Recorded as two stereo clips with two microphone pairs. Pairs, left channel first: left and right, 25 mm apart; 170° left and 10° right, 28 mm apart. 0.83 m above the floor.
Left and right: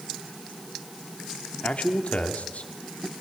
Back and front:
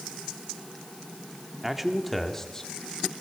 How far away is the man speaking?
About 2.5 m.